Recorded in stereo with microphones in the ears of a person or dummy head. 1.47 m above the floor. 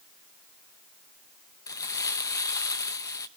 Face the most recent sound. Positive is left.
turn(degrees=15)  # may be behind; listen again after turning